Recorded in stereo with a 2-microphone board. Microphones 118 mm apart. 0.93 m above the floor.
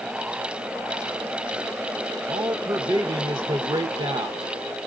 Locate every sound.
2.3 s a man speaking: 40° right (ahead or behind), 0.8 m